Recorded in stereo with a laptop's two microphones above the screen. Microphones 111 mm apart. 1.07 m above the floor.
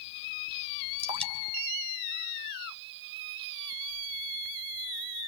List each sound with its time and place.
1.0 s dripping: 60° right (ahead or behind), 3 m